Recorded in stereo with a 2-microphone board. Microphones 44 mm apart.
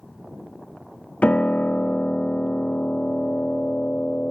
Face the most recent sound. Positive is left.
turn(degrees=30)  # may be behind; listen again after turning